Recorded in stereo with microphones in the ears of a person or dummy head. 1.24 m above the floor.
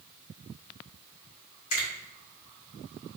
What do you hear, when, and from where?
1.7 s a finger snap: 70° left (ahead or behind), 1.8 m